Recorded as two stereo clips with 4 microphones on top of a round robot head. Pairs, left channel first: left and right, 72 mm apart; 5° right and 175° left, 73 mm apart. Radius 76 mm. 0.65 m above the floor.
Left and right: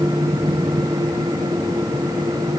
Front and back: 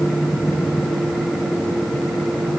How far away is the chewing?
I don't hear chewing.